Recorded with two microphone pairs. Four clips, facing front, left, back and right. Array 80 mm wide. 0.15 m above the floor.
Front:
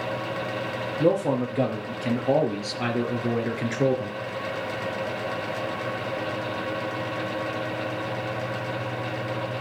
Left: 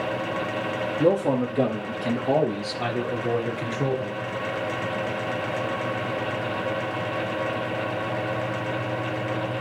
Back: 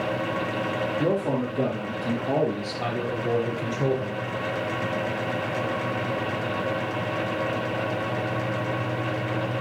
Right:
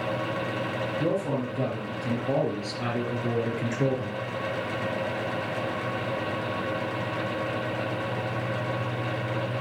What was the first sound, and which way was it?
A man speaking, 45° left.